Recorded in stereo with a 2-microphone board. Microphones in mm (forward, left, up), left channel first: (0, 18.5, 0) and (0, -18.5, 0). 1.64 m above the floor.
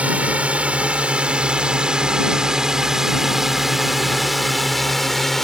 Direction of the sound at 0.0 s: 40° right (ahead or behind).